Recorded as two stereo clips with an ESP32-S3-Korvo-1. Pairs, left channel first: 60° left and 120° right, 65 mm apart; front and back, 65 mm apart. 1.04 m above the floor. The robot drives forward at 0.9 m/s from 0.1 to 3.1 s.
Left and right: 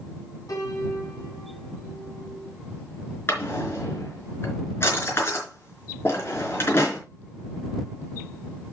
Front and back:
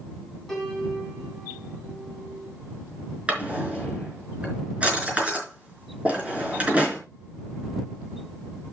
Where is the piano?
85° left, 5.5 m; by 2.5 s 105° left, 6 m.